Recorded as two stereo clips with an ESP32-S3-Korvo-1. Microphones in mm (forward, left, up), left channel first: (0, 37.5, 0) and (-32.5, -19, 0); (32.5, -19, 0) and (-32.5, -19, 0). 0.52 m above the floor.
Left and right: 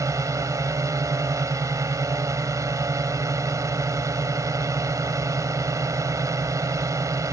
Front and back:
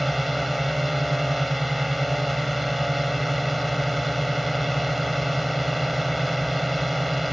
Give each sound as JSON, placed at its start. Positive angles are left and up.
{"t": 0.0, "sound": "a drone", "azimuth_deg": -90}